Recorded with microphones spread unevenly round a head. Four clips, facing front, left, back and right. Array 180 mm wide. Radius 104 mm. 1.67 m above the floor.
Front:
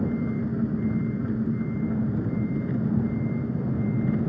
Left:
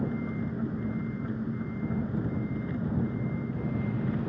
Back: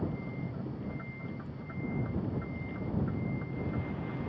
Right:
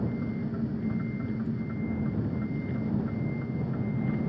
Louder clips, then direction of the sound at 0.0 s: Even, front 11 dB; straight ahead.